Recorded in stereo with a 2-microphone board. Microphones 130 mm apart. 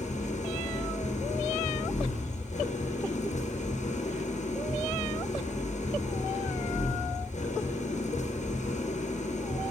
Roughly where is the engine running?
Left.